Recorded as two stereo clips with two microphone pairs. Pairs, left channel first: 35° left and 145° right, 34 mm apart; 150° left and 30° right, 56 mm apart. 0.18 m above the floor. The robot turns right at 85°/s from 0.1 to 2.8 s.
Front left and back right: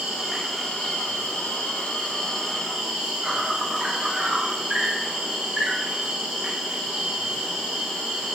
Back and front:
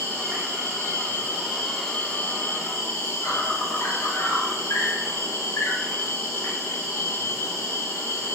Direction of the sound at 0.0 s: 85° right.